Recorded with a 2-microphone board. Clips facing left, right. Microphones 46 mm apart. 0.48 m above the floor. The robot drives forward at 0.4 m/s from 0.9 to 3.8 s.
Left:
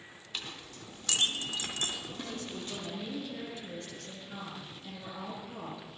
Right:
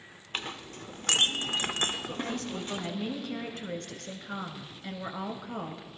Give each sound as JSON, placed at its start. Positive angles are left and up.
{"t": 0.3, "sound": "a clink", "side_deg": -45, "distance_m": 0.8}
{"t": 2.3, "sound": "a woman speaking", "side_deg": -65, "distance_m": 1.6}